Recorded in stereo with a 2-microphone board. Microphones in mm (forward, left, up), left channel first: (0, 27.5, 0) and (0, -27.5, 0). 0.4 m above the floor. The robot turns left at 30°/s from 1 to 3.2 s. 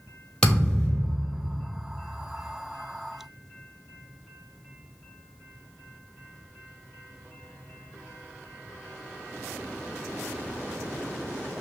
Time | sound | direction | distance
0.4 | a thud | 10° left (ahead or behind) | 1.6 m